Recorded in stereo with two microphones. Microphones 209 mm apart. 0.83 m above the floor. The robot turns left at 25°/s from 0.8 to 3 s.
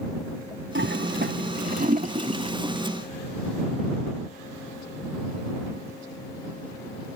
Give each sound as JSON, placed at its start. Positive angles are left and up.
{"t": 0.8, "sound": "a toilet flushing", "side_deg": -65}